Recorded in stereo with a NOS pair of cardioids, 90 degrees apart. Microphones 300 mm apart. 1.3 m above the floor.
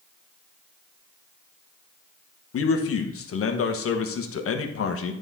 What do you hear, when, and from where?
2.5 s a man speaking: 50° left, 1.2 m